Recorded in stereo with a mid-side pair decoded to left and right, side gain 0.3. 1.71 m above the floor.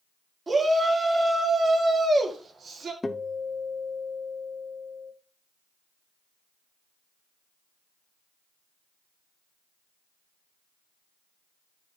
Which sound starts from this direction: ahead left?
A guitar, at 3.0 s.